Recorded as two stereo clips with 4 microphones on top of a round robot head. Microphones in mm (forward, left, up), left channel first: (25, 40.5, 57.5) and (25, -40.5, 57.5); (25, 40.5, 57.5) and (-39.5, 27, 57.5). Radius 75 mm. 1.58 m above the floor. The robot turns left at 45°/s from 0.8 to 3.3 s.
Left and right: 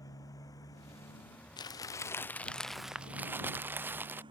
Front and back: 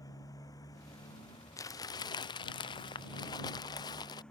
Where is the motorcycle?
45° left; by 4.3 s 70° right.